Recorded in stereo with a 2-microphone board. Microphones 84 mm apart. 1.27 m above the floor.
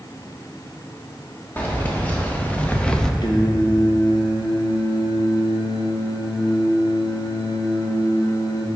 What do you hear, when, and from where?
1.6 s keys jangling: 20° left (ahead or behind), 1.3 m; by 3.1 s 5° left (ahead or behind), 0.5 m
3.2 s singing: 65° left (ahead or behind), 1.0 m